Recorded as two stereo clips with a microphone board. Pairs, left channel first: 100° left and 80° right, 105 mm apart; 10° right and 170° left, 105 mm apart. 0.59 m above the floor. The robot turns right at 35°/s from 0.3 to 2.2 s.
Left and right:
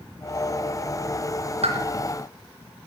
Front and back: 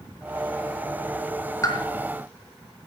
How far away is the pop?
About 3.5 m.